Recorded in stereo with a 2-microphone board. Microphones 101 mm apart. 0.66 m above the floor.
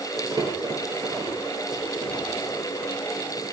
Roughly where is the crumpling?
Right.